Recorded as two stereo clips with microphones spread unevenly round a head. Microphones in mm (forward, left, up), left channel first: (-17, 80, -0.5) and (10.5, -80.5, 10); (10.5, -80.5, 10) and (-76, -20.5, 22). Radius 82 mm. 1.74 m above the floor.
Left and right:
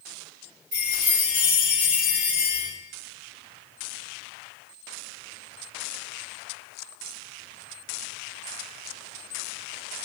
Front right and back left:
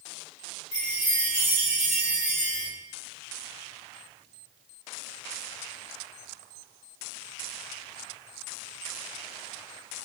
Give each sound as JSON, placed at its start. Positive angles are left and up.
{"t": 0.7, "sound": "a chime", "azimuth_deg": -40, "distance_m": 1.9}